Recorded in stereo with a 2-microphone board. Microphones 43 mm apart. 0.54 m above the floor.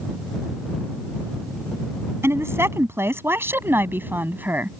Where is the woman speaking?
75° right (ahead or behind); by 4.8 s 40° right (ahead or behind).